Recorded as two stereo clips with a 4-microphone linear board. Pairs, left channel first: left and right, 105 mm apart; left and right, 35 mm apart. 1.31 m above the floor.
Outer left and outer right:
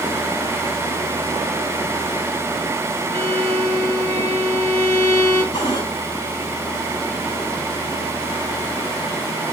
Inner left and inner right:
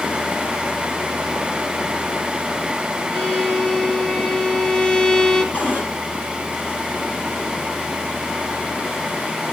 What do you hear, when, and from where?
3.1 s a violin: 25° left (ahead or behind), 3.5 m
5.5 s a cupboard door: 50° left (ahead or behind), 5.5 m